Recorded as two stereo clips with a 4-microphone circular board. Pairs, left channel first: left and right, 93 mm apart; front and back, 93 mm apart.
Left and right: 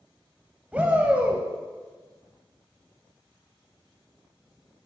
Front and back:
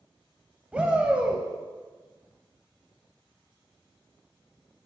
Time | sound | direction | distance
0.7 | a shout | 130° right | 0.9 m